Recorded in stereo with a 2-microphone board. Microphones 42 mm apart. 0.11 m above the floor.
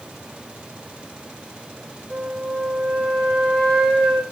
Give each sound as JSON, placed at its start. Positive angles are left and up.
{"t": 2.1, "sound": "a flute", "side_deg": 15, "distance_m": 1.4}